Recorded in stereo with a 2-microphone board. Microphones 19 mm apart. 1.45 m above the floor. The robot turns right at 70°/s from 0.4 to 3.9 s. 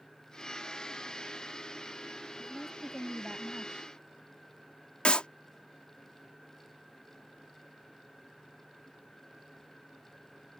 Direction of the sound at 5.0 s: 65° left (ahead or behind).